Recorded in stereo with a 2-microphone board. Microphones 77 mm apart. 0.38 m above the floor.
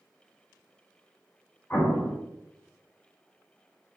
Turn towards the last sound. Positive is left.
turn(degrees=30)  # may be behind; listen again after turning